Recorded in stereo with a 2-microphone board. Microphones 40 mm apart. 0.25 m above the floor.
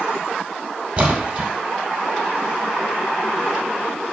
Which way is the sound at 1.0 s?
40° right (ahead or behind).